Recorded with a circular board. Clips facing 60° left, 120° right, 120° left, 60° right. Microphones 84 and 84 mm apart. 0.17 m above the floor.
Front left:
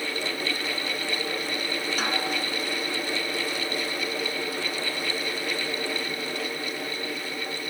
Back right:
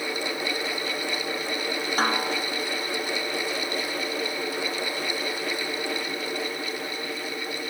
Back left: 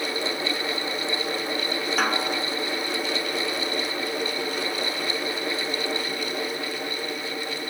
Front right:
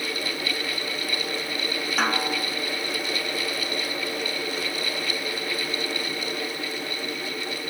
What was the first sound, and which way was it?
A snare drum, 150° right.